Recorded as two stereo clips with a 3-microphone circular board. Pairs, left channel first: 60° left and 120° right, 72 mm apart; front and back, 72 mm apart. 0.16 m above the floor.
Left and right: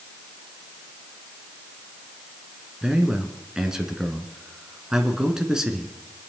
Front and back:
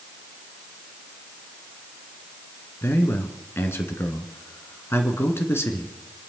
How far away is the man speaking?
About 2 m.